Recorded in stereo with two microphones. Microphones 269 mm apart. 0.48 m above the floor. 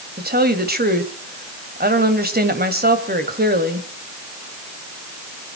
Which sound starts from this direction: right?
A woman speaking, at 0.2 s.